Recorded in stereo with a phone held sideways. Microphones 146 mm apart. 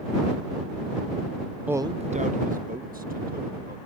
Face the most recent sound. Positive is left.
turn(degrees=-80)